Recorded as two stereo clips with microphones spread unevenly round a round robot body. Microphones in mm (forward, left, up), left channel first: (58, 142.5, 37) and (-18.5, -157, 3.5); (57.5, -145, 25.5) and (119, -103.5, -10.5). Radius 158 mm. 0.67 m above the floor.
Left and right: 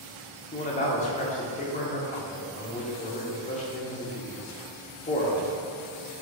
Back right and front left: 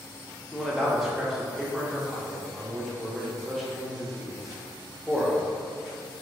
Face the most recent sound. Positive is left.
turn(degrees=20)